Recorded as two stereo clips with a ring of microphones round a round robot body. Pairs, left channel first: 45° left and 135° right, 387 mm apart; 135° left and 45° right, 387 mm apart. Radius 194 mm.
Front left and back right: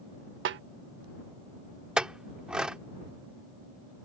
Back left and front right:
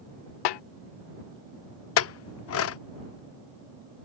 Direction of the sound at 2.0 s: 140° left.